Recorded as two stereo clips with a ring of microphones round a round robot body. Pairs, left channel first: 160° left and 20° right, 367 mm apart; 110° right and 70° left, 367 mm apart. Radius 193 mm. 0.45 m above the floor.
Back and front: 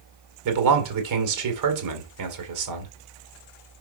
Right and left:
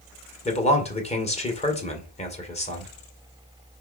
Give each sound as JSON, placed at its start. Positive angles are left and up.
{"t": 0.5, "sound": "a man speaking", "azimuth_deg": -45, "distance_m": 2.0}